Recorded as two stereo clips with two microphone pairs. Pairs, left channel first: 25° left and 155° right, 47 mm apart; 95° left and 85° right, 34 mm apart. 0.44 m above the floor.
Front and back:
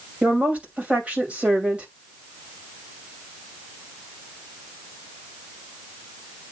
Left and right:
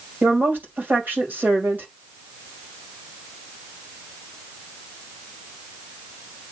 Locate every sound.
0.2 s a woman speaking: 95° right, 2.5 m